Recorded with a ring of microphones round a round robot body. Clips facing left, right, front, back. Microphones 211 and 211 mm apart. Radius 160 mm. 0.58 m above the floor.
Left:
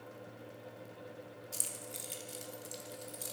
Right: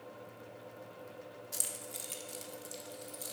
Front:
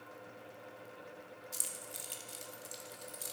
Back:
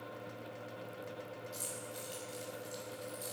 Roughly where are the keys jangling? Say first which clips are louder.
Right 1 dB, back 6 dB; ahead.